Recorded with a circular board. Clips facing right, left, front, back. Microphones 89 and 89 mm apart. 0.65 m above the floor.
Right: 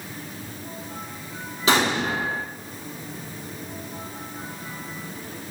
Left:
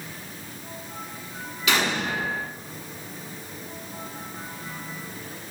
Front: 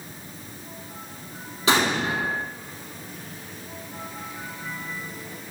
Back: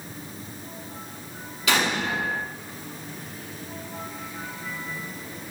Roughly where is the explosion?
Ahead right.